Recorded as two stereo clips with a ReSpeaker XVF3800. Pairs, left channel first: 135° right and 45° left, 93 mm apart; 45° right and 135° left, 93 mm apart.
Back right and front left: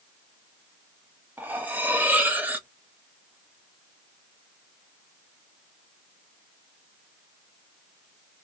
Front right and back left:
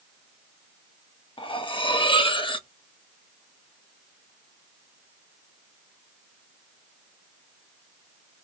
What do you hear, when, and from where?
1.4 s cutlery clinking: 25° right, 0.6 m